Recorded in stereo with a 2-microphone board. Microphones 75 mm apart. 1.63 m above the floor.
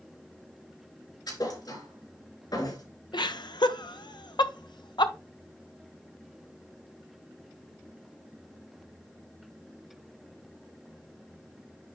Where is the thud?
60° left (ahead or behind), 4 m.